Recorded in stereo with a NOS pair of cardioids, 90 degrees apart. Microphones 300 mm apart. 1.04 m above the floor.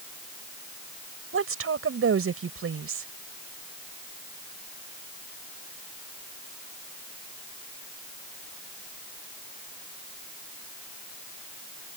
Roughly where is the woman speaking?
Ahead right.